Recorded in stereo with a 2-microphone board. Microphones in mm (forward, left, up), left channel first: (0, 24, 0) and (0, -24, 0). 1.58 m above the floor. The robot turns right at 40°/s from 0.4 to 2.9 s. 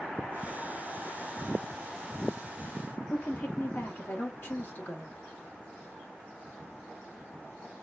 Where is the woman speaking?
45° left (ahead or behind), 1.0 m.